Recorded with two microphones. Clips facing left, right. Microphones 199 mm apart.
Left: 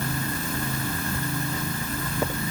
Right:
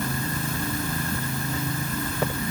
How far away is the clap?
No clap in this recording.